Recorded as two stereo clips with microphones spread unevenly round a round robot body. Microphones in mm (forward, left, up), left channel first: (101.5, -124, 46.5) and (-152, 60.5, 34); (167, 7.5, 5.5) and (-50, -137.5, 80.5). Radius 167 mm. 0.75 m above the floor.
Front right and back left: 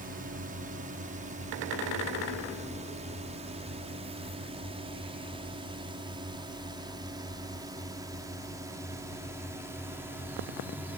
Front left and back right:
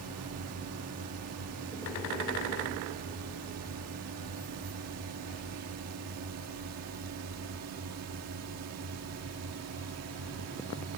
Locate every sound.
0.0 s a drone: 165° right; by 11.0 s 135° right